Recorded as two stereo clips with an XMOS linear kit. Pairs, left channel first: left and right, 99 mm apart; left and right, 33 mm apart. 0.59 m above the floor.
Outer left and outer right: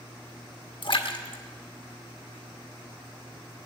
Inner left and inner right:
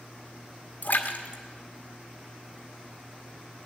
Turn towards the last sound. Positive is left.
turn(degrees=55)  # may be behind; listen again after turning